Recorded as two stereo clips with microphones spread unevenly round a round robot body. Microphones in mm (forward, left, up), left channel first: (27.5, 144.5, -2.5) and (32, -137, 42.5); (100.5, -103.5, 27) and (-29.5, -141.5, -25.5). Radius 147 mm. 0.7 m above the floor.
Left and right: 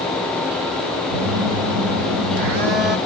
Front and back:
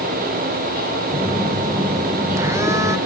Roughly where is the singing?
No singing in this recording.